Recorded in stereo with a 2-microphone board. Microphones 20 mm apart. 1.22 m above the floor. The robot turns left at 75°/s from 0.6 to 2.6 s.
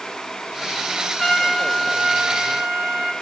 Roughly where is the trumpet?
Ahead left.